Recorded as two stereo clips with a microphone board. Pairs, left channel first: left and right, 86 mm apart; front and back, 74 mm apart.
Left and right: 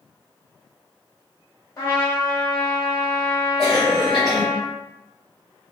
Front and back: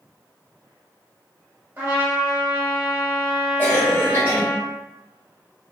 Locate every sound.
1.8 s a trumpet: 130° left, 1.2 m
3.6 s a cough: 15° right, 1.0 m